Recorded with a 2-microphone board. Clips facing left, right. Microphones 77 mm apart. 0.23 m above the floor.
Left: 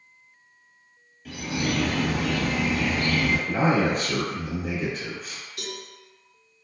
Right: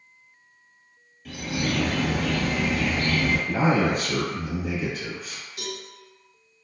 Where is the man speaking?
5° right (ahead or behind), 1.0 m.